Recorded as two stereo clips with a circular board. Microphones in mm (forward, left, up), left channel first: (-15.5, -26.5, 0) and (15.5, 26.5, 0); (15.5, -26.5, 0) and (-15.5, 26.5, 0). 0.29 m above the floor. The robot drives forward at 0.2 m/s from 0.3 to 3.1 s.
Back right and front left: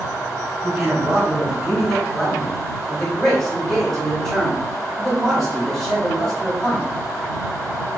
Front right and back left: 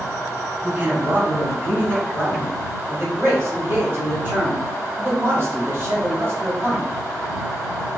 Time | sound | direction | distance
0.6 | a man speaking | 135° left | 1.0 m